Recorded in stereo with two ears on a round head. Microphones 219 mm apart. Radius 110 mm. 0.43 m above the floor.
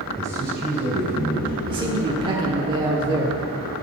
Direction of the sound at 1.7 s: 20° right (ahead or behind).